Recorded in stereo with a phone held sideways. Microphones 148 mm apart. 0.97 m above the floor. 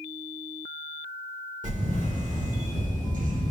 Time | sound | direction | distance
1.6 | a camera shutter | 60° right (ahead or behind) | 1.2 m